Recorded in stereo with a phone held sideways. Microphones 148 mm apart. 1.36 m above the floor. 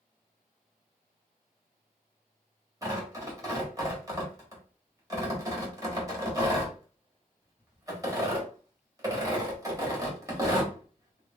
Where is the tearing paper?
20° right (ahead or behind), 1.2 m.